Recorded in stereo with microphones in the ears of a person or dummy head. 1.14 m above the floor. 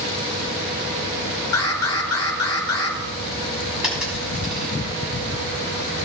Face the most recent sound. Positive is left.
turn(degrees=5)  # may be behind; listen again after turning